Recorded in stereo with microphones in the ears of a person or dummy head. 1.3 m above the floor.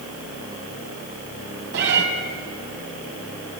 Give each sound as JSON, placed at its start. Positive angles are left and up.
{"t": 1.7, "sound": "a cat meowing", "side_deg": -65, "distance_m": 3.5}